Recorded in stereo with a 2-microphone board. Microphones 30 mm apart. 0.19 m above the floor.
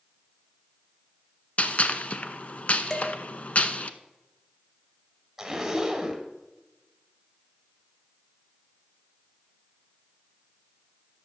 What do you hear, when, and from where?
1.6 s a gunshot: 50° left (ahead or behind), 0.6 m
2.9 s dishes clattering: 25° left (ahead or behind), 1.9 m
5.4 s a zipper: 10° right (ahead or behind), 1.7 m